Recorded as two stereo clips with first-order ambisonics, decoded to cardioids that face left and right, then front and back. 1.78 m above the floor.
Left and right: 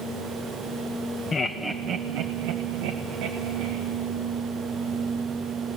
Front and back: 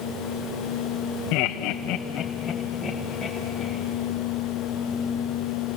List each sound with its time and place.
1.3 s laughter: 20° left, 1.1 m; by 3.8 s 100° right, 3 m